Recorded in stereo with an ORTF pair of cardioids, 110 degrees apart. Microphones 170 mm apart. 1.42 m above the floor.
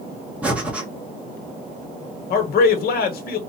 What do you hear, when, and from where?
0.4 s breathing: 5° right, 1.6 m
2.3 s a man speaking: 65° left, 1.3 m